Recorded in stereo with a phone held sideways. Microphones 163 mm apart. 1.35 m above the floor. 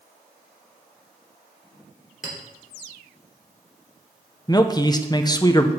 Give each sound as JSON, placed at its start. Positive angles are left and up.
{"t": 2.2, "sound": "a clink", "side_deg": -65, "distance_m": 3.5}
{"t": 4.5, "sound": "a man speaking", "side_deg": 25, "distance_m": 0.8}